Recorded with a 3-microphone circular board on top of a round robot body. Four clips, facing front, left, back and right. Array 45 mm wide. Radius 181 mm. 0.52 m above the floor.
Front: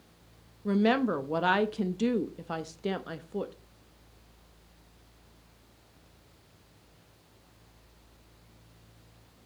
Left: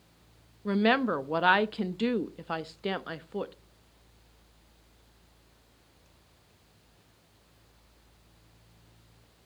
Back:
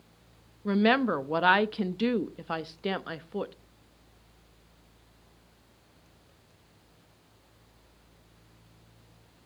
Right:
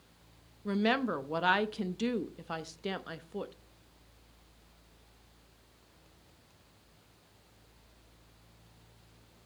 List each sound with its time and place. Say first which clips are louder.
0.7 s a woman speaking: left 5 dB, back 2 dB; 140° left, 0.9 m